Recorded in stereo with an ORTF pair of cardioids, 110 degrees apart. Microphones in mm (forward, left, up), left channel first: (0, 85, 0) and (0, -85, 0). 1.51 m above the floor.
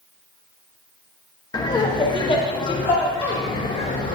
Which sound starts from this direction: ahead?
Laughter, at 1.5 s.